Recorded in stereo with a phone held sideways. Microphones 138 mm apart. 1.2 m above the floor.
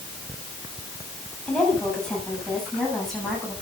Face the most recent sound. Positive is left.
turn(degrees=0)  # may be behind; listen again after turning